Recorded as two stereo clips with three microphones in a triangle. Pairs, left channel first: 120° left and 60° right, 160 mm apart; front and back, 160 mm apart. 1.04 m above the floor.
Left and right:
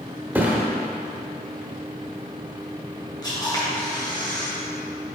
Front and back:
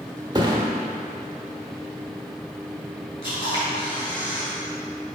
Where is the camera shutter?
55° left, 1.9 m.